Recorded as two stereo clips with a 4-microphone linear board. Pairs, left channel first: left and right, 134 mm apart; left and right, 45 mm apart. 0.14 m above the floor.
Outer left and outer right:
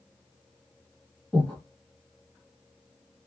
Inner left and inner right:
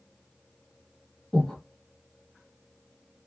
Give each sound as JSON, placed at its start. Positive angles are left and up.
{"t": 1.3, "sound": "breathing", "side_deg": 10, "distance_m": 2.0}